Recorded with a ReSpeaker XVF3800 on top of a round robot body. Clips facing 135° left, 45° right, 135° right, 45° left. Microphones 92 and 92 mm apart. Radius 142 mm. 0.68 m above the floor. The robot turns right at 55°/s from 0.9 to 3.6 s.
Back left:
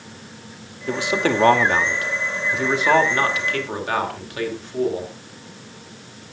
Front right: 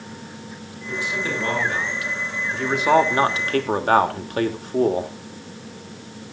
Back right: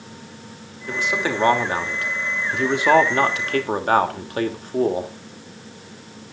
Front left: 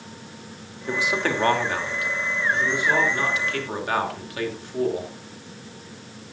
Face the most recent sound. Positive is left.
turn(degrees=-90)